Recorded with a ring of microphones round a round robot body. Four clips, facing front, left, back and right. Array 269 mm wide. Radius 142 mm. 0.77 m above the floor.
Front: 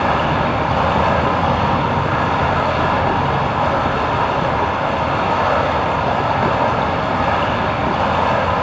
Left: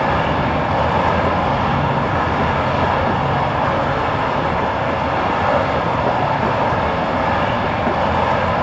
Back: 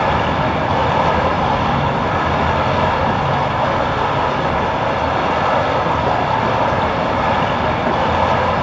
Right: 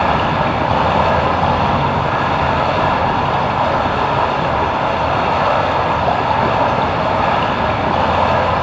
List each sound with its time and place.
0.0 s running water: 100° right, 6.5 m